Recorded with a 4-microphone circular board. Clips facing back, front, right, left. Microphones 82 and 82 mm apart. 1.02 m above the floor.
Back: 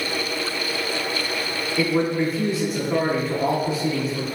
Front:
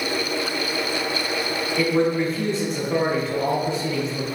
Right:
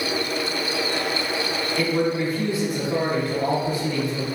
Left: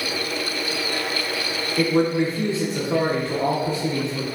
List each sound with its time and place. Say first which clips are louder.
1.8 s a man speaking: front 1 dB, left 4 dB; 100° left, 0.7 m